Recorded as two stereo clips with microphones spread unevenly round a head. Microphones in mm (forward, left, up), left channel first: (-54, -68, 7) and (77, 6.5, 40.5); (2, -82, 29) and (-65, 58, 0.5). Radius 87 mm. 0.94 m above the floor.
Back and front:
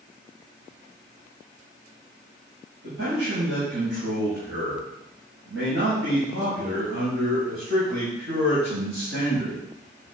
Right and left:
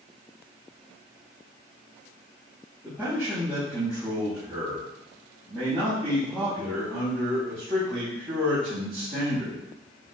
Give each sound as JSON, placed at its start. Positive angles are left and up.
{"t": 2.8, "sound": "a man speaking", "azimuth_deg": 40, "distance_m": 6.5}